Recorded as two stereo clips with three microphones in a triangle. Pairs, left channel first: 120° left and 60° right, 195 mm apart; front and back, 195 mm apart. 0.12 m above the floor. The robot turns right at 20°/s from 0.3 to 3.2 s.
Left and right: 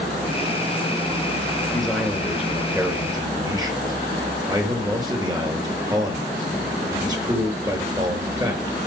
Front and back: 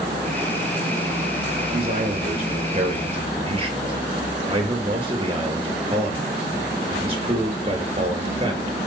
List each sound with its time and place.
1.7 s a man speaking: 155° right, 3 m; by 8.8 s 125° right, 3 m